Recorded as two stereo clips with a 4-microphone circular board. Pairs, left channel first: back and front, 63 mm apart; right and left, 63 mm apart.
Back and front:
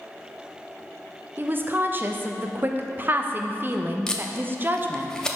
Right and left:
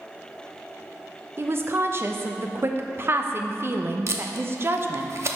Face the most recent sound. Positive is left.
turn(degrees=105)